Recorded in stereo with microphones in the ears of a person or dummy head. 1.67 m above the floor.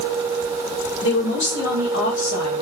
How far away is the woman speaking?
About 1.7 m.